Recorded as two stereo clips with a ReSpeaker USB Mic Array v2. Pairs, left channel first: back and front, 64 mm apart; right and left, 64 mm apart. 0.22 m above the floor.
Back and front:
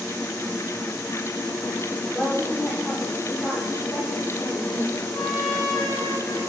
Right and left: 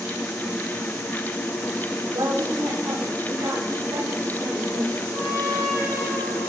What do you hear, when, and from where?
2.1 s a woman speaking: 115° left, 8 m
5.1 s a trumpet: 100° left, 9.5 m